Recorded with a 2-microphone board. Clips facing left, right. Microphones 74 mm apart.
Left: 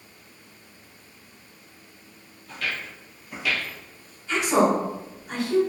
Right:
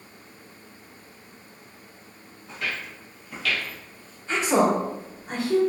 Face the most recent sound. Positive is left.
turn(degrees=-40)  # may be behind; listen again after turning